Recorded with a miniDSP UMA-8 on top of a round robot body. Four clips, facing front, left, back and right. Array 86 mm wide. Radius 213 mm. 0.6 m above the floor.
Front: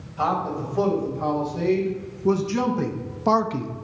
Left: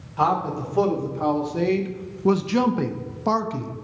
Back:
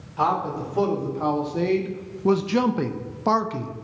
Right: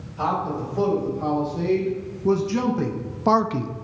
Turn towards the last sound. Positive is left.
turn(degrees=-75)